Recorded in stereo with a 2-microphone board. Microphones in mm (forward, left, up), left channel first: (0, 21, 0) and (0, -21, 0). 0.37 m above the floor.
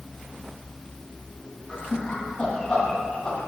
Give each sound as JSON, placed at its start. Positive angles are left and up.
{"t": 1.7, "sound": "laughter", "side_deg": 15, "distance_m": 2.5}